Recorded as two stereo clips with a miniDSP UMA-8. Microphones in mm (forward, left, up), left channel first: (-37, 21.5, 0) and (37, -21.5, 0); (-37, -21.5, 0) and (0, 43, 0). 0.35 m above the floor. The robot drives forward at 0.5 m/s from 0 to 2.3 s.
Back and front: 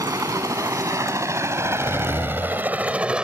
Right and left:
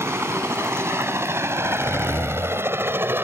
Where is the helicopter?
10° left; by 3.2 s 40° left.